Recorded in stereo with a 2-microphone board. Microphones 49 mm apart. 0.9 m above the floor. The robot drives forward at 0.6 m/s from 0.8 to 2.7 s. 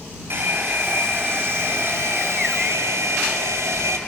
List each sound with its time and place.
0.3 s a hair dryer: 50° right (ahead or behind), 3 m; by 4.0 s 75° right (ahead or behind), 2.5 m